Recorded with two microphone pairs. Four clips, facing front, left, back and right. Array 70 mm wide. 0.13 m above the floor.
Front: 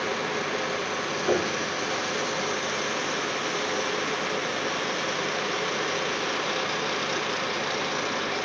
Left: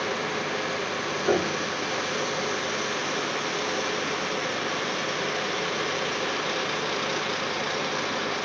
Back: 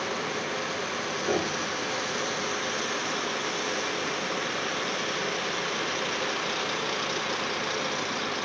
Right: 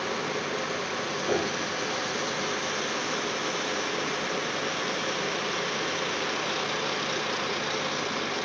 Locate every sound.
1.3 s a piano: 80° left, 6 m